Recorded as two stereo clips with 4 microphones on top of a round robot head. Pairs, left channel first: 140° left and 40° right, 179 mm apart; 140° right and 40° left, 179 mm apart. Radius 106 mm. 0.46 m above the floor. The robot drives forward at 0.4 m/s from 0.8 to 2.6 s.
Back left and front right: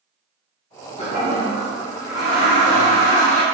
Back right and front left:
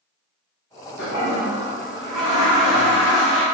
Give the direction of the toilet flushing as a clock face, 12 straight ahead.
5 o'clock.